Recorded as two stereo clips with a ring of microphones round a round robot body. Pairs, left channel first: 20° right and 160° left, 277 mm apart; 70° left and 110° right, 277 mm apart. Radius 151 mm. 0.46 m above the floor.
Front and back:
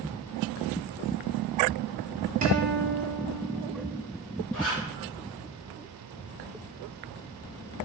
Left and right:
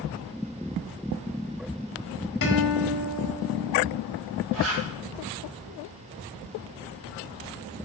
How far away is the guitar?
About 1.7 m.